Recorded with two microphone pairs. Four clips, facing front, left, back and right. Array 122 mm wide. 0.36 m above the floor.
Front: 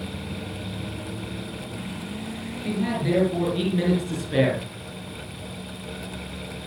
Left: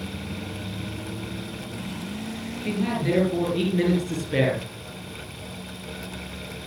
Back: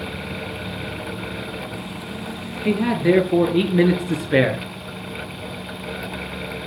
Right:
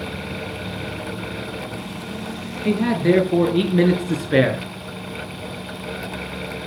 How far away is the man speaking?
About 6.5 m.